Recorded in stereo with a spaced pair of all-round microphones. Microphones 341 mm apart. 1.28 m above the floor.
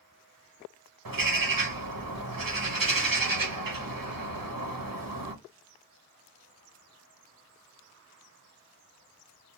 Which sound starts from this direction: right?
A bird, at 1.1 s.